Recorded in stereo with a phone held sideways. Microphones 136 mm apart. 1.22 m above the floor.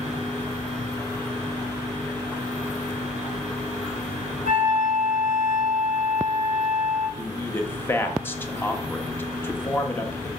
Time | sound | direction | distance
4.5 | a flute | 80° left | 3.5 m
7.2 | a man speaking | 15° left (ahead or behind) | 1.6 m